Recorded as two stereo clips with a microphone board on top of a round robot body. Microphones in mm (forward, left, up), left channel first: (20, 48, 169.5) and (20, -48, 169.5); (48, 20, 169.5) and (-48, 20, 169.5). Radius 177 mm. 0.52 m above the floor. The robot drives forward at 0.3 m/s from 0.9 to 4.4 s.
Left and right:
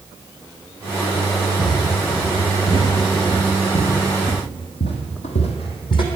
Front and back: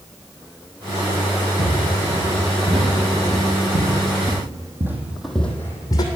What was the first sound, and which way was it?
Footsteps, 155° left.